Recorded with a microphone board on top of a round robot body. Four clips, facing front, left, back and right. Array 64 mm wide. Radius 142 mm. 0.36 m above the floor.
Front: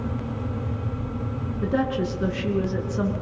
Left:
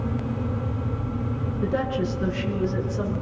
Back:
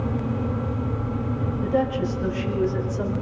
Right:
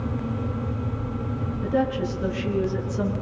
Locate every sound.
1.6 s a woman speaking: 30° left, 6.5 m; by 3.1 s 10° left, 6.5 m